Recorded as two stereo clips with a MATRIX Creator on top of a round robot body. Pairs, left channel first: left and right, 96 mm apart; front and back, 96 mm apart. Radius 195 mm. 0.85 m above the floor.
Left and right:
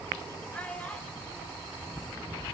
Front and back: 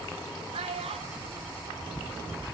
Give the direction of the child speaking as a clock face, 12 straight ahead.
6 o'clock.